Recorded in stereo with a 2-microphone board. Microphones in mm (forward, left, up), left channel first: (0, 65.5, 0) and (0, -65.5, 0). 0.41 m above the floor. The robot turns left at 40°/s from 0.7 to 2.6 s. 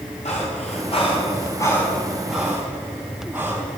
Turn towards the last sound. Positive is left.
turn(degrees=-15)  # may be behind; listen again after turning